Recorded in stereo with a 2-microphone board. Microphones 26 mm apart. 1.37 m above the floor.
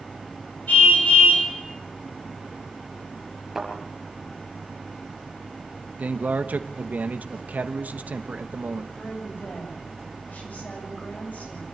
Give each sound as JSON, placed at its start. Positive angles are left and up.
{"t": 0.7, "sound": "a car horn", "side_deg": 85, "distance_m": 8.5}
{"t": 3.5, "sound": "a thud", "side_deg": -10, "distance_m": 5.5}
{"t": 6.0, "sound": "a man speaking", "side_deg": -80, "distance_m": 1.2}
{"t": 8.9, "sound": "a woman speaking", "side_deg": 75, "distance_m": 7.5}